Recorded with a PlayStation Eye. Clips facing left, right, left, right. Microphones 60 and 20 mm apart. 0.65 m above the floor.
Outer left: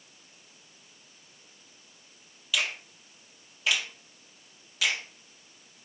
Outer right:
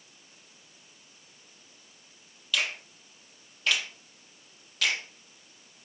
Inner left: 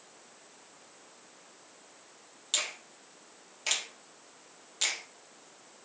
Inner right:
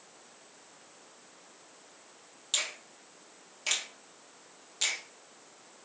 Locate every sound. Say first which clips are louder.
2.5 s a finger snap: even, even; 5° left (ahead or behind), 0.9 m